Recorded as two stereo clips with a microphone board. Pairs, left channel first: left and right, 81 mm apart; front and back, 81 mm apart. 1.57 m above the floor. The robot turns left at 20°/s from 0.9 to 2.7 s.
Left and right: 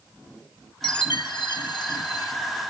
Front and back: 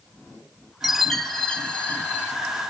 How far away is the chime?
About 1.2 m.